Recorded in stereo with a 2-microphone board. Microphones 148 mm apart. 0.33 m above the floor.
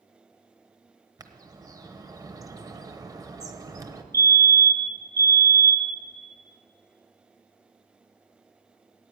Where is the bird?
25° right (ahead or behind), 0.9 m.